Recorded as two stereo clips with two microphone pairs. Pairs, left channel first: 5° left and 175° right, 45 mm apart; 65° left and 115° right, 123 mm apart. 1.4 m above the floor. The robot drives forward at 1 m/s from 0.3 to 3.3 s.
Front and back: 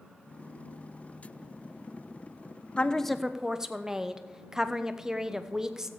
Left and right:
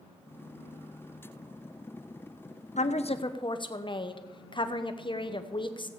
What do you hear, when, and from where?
2.8 s a woman speaking: 65° left, 0.8 m; by 5.9 s 105° left, 0.8 m